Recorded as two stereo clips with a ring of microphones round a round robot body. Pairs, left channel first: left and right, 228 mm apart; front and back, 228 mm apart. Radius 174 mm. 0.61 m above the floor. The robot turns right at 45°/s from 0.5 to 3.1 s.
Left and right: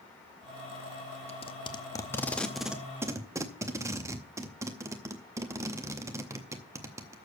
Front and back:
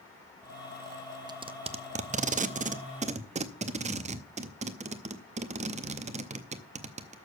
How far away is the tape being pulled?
About 0.7 m.